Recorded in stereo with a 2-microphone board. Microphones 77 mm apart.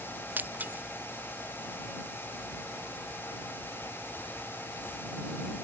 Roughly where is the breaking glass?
Right.